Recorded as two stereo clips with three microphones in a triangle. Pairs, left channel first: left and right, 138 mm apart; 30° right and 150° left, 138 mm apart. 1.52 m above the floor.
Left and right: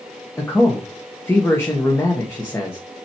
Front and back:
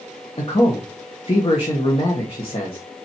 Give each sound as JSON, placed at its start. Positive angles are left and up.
{"t": 0.4, "sound": "a man speaking", "azimuth_deg": 15, "distance_m": 1.5}